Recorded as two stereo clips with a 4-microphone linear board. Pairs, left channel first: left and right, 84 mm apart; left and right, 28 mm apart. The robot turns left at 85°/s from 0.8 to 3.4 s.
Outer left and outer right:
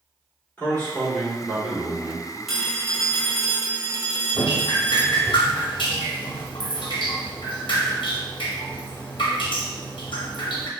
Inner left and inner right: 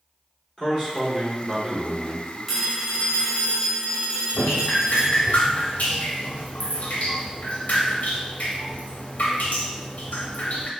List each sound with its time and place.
0.6 s a man speaking: 25° left (ahead or behind), 1.4 m; by 2.4 s 15° right (ahead or behind), 1.4 m
2.5 s a phone ringing: straight ahead, 0.8 m; by 5.3 s 80° right, 0.8 m
4.3 s dripping: 80° left, 0.6 m